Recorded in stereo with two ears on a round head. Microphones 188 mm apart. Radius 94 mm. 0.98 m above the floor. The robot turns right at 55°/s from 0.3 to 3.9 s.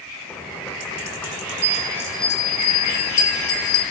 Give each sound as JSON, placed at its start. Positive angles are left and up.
{"t": 1.6, "sound": "a bell", "azimuth_deg": -30, "distance_m": 1.3}